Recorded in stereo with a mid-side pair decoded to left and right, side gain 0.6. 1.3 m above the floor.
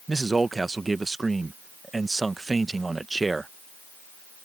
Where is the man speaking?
15° right.